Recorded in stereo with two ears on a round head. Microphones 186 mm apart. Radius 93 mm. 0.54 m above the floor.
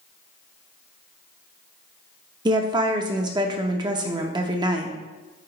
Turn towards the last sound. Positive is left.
turn(degrees=-20)  # may be behind; listen again after turning